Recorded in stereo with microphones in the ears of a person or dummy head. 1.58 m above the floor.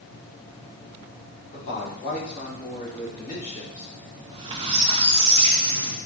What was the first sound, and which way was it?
A man speaking, 45° left (ahead or behind).